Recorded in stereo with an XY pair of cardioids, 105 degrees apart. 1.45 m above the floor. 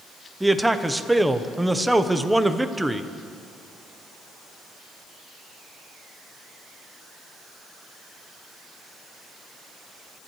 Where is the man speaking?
5° right, 0.9 m.